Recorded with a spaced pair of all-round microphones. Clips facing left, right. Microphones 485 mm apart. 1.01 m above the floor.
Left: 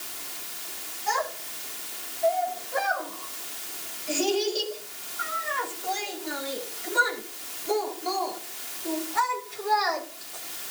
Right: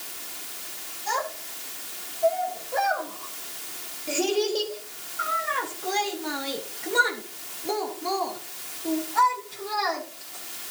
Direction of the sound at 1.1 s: 55° right (ahead or behind).